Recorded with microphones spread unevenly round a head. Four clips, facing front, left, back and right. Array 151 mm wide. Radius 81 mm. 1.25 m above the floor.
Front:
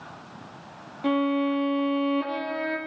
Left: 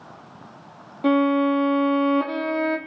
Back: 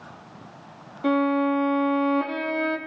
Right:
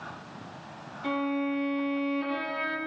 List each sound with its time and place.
1.0 s a violin: 100° left, 3.5 m